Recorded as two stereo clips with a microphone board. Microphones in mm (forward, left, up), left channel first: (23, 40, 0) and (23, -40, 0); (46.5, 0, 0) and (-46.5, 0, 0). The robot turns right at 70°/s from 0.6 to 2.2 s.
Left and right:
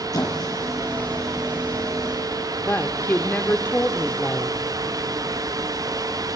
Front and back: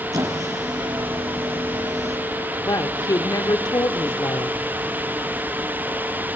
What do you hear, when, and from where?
0.1 s a squeak: 130° left, 4.5 m; by 2.2 s 120° right, 4.5 m
2.6 s a woman speaking: 30° left, 1.1 m